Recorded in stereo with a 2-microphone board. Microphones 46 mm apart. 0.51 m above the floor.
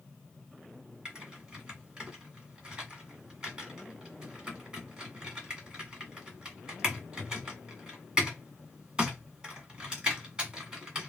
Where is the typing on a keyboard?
20° right (ahead or behind), 1.8 m.